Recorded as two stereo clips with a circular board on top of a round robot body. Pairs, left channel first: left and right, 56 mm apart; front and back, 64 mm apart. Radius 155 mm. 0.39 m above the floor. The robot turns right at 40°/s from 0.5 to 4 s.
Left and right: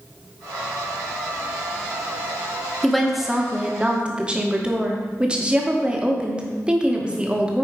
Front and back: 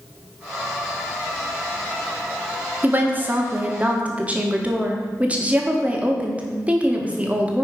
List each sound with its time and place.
2.8 s a woman speaking: 175° left, 1.5 m; by 7.6 s 135° right, 1.5 m